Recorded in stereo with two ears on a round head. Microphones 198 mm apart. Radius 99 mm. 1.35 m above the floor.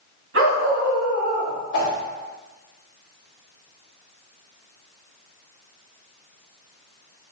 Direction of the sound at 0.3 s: 55° right (ahead or behind).